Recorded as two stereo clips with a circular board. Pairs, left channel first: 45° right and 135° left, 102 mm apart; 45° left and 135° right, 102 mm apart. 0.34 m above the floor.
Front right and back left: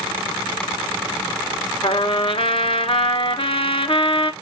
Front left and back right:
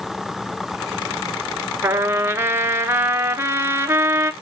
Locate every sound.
1.8 s a trumpet: 70° right, 0.8 m